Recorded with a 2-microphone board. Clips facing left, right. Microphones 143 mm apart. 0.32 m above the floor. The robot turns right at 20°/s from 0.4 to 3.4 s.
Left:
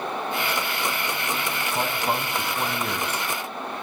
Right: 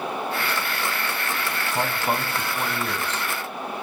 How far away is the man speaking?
About 1.9 m.